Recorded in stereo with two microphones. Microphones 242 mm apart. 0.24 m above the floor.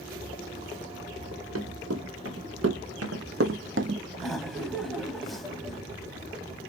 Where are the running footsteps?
80° right, 2 m; by 4.0 s 45° right (ahead or behind), 0.5 m.